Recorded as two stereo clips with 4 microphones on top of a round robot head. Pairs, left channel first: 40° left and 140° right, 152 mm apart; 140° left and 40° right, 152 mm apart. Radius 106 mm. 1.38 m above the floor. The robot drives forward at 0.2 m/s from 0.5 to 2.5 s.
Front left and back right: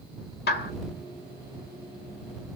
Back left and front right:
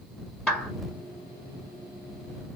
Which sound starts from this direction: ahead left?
A clap, at 0.5 s.